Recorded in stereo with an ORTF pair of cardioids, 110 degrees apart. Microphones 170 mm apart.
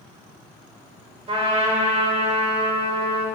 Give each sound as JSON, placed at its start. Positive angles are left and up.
{"t": 1.3, "sound": "a trumpet", "azimuth_deg": -35, "distance_m": 5.0}